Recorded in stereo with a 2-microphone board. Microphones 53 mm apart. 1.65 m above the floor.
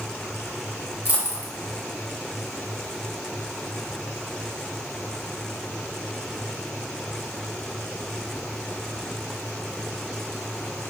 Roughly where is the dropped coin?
Right.